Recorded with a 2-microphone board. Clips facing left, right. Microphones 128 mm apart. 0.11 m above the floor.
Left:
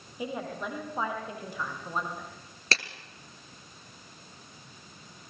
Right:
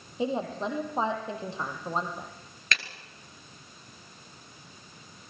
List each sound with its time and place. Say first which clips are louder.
0.2 s a woman speaking: right 5 dB; 25° right (ahead or behind), 4.5 m
2.7 s a clap: left 2 dB; 35° left (ahead or behind), 1.5 m